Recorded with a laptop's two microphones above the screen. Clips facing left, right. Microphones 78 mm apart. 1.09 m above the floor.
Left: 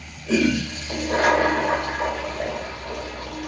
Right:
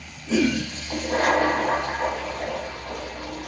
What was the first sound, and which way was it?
A toilet flushing, 80° left.